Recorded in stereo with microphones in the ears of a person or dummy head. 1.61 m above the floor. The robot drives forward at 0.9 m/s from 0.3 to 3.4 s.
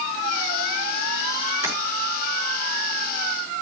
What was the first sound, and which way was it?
Tapping, 15° right (ahead or behind).